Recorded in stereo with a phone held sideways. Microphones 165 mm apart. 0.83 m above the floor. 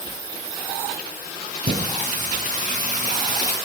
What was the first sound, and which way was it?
Singing, 55° right (ahead or behind).